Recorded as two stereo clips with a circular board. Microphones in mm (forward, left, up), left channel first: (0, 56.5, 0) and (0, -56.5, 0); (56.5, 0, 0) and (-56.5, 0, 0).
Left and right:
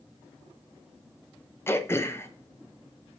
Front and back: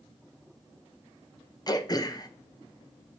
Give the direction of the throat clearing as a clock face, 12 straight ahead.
11 o'clock.